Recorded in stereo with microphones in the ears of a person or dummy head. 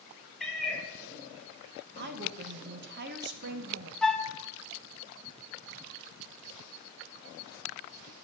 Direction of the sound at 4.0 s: 5° left (ahead or behind).